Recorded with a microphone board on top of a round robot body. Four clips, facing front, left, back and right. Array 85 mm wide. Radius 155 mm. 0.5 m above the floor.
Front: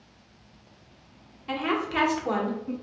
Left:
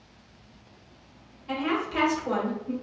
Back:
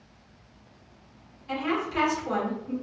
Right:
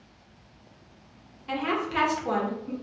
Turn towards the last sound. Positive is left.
turn(degrees=-30)